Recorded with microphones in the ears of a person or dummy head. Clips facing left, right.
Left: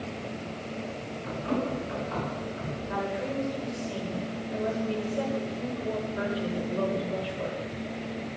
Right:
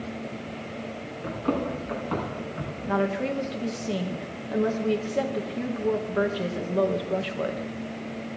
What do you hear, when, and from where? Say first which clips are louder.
1.2 s running footsteps: right 3 dB; 65° right (ahead or behind), 6 m
2.9 s a woman speaking: right 7 dB; 75° right (ahead or behind), 1.5 m